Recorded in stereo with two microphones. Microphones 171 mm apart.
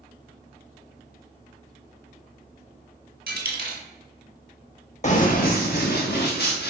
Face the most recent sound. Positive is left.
turn(degrees=85)